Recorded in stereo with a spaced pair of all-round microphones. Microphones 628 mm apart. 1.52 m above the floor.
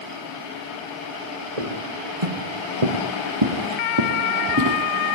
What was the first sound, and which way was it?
Footsteps, 70° right (ahead or behind).